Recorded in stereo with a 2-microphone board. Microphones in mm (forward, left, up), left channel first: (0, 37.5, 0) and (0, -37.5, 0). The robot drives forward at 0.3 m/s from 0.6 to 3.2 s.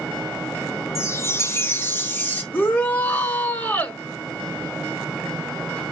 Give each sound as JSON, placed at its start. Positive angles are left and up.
{"t": 0.9, "sound": "a chime", "side_deg": 40, "distance_m": 0.7}
{"t": 2.5, "sound": "a shout", "side_deg": 30, "distance_m": 1.6}